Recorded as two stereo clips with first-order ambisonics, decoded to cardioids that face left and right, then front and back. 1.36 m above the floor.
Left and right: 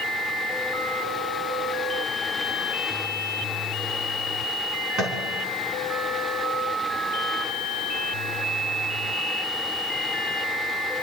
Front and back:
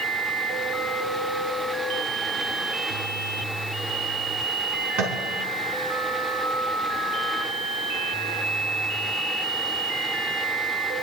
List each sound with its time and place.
5.0 s tapping: 145° right, 3.5 m